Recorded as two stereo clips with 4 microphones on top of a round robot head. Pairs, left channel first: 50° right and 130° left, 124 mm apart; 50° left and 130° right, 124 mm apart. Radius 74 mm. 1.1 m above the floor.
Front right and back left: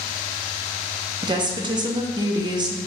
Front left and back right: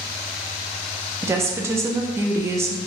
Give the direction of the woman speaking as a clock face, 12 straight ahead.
6 o'clock.